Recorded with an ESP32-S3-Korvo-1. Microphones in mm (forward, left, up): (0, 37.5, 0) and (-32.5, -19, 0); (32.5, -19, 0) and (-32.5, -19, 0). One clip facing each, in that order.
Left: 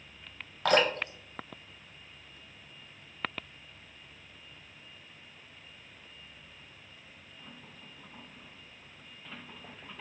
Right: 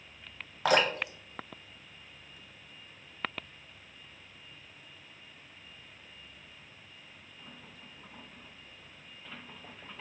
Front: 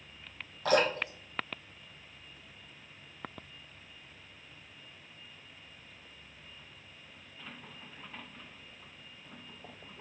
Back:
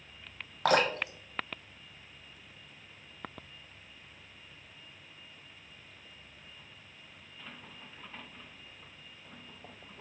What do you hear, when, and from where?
0.7 s dripping: 155° left, 0.8 m